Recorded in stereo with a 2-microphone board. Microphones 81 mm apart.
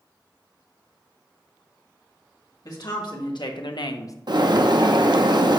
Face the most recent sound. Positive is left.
turn(degrees=-60)  # may be behind; listen again after turning